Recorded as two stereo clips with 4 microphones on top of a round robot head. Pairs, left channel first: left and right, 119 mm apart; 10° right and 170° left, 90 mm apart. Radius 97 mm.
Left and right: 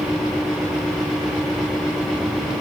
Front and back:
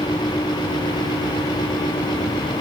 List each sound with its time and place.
Only background noise.